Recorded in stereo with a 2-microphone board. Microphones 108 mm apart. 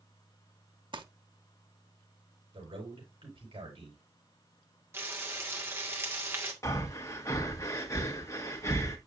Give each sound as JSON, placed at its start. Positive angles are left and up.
{"t": 0.9, "sound": "crumpling", "side_deg": -50, "distance_m": 0.8}
{"t": 2.5, "sound": "a man speaking", "side_deg": -60, "distance_m": 5.0}
{"t": 4.9, "sound": "frying", "side_deg": -25, "distance_m": 1.8}
{"t": 6.6, "sound": "breathing", "side_deg": 30, "distance_m": 1.4}